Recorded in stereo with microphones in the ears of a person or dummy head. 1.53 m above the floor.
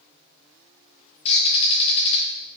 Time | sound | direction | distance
1.2 | a bird | 30° left (ahead or behind) | 0.9 m